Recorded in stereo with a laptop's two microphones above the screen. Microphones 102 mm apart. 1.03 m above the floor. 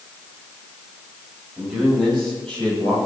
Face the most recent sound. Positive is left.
turn(degrees=15)  # may be behind; listen again after turning